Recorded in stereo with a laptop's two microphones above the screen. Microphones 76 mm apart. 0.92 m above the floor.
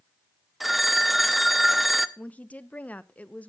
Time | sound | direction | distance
0.6 | a phone ringing | centre (ahead or behind) | 0.8 m
2.2 | a woman speaking | 20° left (ahead or behind) | 0.6 m